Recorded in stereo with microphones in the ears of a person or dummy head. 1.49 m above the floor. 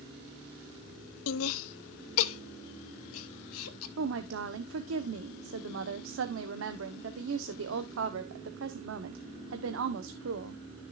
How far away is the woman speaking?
About 1.0 m.